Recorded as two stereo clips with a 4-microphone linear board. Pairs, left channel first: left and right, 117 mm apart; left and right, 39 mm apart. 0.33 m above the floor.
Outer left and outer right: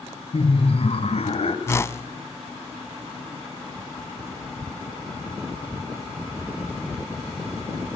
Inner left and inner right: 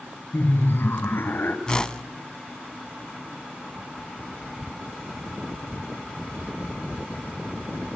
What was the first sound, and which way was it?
Laughter, 55° left (ahead or behind).